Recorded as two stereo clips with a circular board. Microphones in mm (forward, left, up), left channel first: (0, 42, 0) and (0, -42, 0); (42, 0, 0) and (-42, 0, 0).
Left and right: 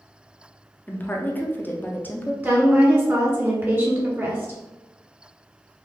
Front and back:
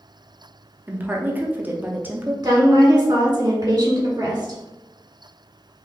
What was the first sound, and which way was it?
A woman speaking, 130° left.